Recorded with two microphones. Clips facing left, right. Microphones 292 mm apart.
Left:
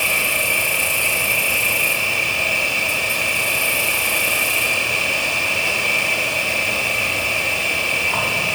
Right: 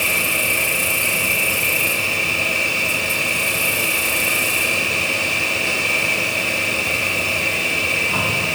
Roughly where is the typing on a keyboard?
I don't hear typing on a keyboard.